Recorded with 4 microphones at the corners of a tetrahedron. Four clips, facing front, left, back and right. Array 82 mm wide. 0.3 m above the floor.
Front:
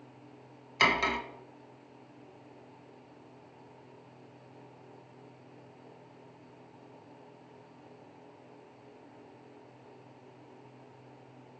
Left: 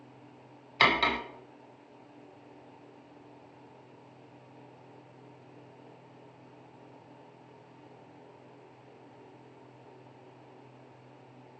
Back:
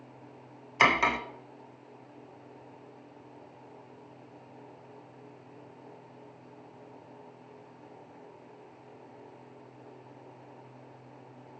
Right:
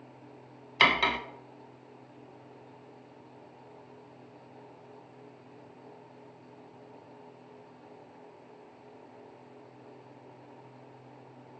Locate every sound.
0.8 s cutlery clinking: 170° left, 0.6 m